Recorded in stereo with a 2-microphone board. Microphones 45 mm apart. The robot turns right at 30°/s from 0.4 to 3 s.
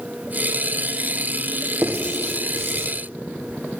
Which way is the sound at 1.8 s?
80° right.